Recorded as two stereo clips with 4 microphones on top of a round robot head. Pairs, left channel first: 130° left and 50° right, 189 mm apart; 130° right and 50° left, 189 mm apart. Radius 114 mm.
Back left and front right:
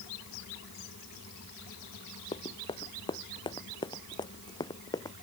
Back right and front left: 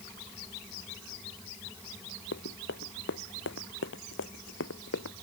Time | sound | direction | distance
2.3 | running footsteps | 160° right | ?